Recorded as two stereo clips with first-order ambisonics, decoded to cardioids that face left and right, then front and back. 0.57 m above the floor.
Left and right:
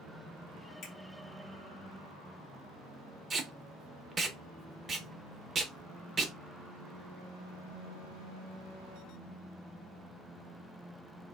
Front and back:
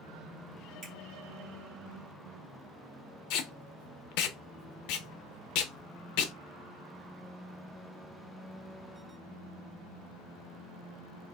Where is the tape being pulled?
15° right, 0.5 m.